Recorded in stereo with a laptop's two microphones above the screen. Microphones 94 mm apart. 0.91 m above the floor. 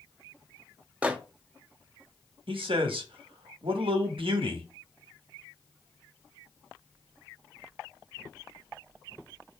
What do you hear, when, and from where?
1.0 s a microwave: 15° right (ahead or behind), 0.7 m
2.5 s a man speaking: 75° right (ahead or behind), 1.2 m